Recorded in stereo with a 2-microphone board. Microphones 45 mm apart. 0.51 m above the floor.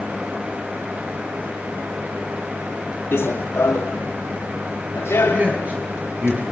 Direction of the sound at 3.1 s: 60° left (ahead or behind).